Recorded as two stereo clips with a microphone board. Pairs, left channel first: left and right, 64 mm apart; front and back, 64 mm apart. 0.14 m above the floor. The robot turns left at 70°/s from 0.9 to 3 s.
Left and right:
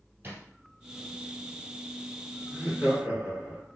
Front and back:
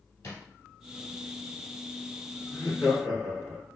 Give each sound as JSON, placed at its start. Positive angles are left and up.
{"t": 0.2, "sound": "a drawer", "azimuth_deg": -35, "distance_m": 1.3}
{"t": 2.5, "sound": "laughter", "azimuth_deg": -35, "distance_m": 1.7}